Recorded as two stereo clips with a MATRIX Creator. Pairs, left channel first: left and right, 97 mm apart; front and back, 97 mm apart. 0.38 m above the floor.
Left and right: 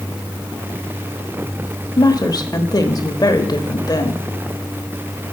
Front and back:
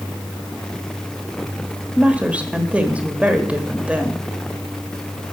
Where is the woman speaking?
110° left, 1.1 m.